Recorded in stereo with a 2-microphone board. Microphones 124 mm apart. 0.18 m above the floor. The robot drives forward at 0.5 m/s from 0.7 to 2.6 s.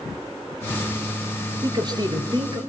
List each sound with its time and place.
1.6 s a man speaking: 35° right (ahead or behind), 3 m; by 2.6 s 40° right (ahead or behind), 2.5 m